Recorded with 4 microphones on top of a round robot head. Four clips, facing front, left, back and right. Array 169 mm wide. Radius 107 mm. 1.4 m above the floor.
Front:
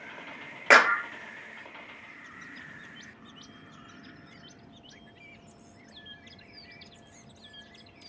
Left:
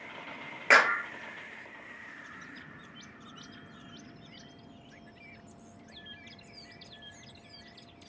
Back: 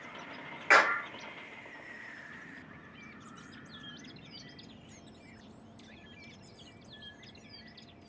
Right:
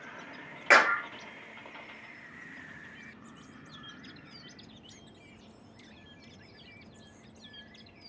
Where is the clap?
Straight ahead, 1.8 m.